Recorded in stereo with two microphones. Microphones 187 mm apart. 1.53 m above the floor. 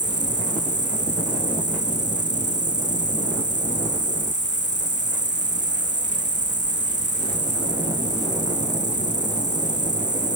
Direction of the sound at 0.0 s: 70° left (ahead or behind).